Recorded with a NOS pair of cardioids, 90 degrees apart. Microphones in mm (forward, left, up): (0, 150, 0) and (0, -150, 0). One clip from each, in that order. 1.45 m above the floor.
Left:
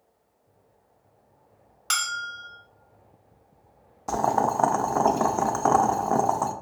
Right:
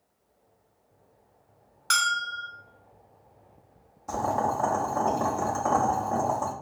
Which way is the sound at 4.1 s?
40° left.